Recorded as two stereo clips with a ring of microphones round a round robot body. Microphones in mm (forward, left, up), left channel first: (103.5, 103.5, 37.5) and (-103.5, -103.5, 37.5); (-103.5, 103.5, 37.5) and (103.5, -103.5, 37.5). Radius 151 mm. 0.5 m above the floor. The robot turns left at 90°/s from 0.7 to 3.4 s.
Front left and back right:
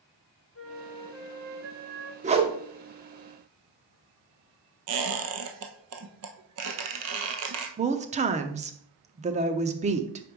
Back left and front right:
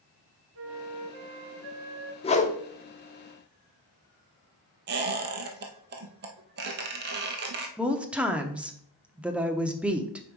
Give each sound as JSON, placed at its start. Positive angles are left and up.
{"t": 0.6, "sound": "a flute", "azimuth_deg": 0, "distance_m": 1.3}
{"t": 2.2, "sound": "a whoosh", "azimuth_deg": -175, "distance_m": 0.8}
{"t": 4.9, "sound": "a squeak", "azimuth_deg": -100, "distance_m": 1.0}
{"t": 7.8, "sound": "a woman speaking", "azimuth_deg": -125, "distance_m": 0.7}